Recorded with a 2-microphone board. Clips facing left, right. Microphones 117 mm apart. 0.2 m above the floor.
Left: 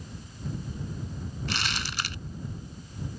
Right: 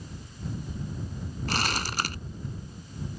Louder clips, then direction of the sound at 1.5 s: Right 5 dB; 45° right (ahead or behind).